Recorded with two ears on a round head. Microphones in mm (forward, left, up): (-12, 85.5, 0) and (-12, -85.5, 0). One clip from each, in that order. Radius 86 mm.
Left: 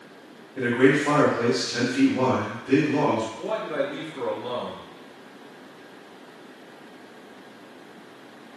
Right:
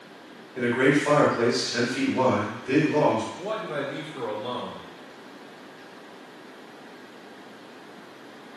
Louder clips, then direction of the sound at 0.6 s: Left 2 dB; 45° right (ahead or behind).